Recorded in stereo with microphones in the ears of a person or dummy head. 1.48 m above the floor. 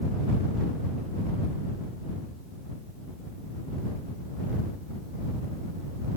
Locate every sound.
Only background noise.